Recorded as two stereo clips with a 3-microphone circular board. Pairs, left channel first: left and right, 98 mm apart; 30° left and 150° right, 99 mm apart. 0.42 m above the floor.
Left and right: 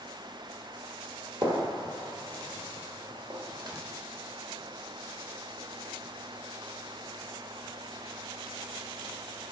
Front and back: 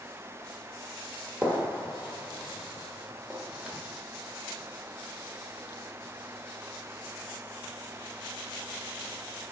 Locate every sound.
1.4 s a gunshot: 80° right, 1.3 m